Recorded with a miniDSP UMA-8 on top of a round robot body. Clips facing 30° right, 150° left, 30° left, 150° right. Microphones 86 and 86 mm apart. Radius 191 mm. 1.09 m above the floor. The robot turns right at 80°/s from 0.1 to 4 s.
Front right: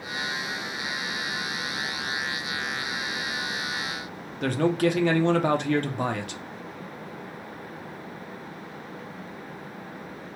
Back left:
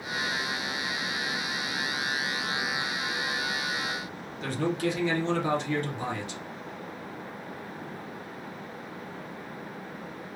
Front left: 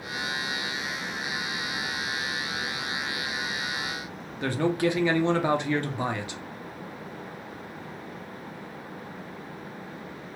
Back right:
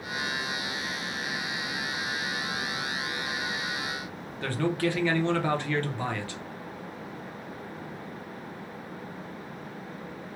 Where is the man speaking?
40° right, 0.8 m.